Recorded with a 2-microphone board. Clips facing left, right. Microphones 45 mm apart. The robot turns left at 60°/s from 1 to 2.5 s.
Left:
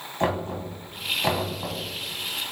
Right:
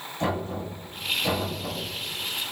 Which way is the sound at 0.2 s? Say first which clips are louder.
Left 2 dB; 45° left (ahead or behind).